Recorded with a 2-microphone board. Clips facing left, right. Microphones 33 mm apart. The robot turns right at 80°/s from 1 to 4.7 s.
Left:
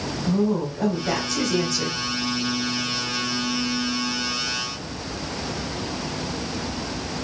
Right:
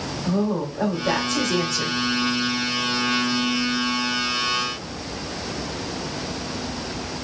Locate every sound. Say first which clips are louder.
0.2 s a woman speaking: left 1 dB; 110° right, 1.7 m; by 2.0 s 30° right, 1.7 m